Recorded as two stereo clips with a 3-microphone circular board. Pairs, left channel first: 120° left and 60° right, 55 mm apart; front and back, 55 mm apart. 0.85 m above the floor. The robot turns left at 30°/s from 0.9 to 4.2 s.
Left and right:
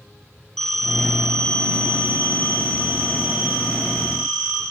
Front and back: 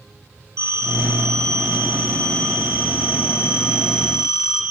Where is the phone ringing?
155° right, 3 m; by 4.6 s 105° left, 3 m.